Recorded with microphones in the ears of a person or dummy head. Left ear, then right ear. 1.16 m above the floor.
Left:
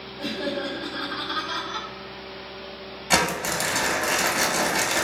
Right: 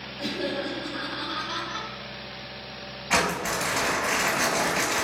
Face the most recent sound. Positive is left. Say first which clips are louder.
# left 2 dB
turn(degrees=70)  # may be behind; listen again after turning